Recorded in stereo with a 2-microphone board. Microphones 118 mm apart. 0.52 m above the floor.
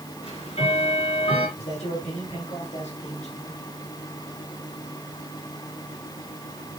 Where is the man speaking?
70° left (ahead or behind), 7 m.